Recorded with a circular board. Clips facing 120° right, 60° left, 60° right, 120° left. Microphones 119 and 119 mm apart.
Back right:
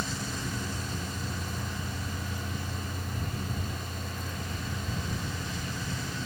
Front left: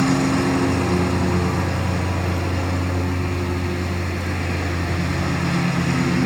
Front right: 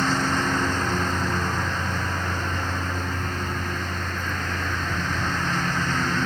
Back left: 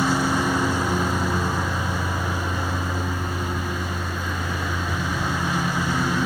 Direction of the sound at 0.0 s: 40° left.